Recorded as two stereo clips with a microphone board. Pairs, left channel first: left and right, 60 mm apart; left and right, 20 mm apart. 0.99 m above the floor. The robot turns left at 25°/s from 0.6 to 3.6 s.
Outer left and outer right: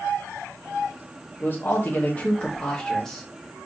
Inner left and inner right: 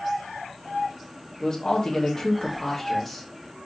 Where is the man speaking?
55° left, 1.0 m; by 3.2 s 10° left, 1.0 m.